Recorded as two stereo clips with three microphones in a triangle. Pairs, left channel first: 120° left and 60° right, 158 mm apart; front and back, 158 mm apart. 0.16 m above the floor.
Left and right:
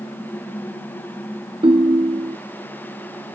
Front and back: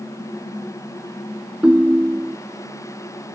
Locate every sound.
1.6 s a ringtone: 100° right